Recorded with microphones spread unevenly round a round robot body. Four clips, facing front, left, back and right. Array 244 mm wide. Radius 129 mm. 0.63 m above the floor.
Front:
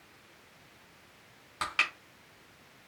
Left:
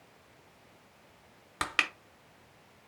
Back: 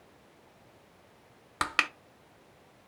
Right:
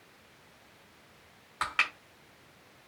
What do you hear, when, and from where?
1.6 s crushing: 135° left, 0.6 m